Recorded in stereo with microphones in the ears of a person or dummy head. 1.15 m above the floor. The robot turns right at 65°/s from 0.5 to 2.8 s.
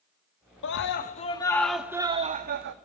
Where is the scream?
105° left, 1.8 m; by 2.8 s 120° right, 1.8 m.